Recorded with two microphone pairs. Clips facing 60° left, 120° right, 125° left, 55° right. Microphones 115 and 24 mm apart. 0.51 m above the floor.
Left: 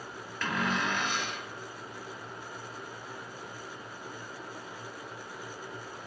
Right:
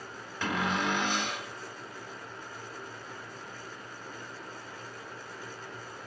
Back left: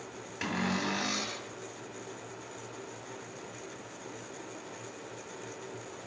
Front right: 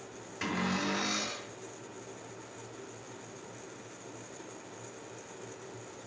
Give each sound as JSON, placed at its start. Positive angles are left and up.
{"t": 0.4, "sound": "a cupboard door", "azimuth_deg": 180, "distance_m": 1.3}